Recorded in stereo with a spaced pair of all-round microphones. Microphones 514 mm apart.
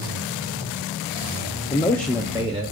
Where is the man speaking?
15° left (ahead or behind), 0.6 m; by 2.7 s 15° right (ahead or behind), 1.1 m.